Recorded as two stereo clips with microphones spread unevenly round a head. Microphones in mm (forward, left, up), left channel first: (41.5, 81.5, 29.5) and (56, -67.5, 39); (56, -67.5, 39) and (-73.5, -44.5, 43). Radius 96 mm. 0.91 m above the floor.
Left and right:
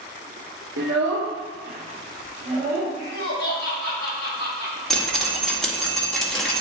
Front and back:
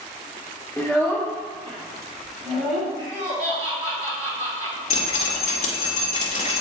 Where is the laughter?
120° left, 2 m.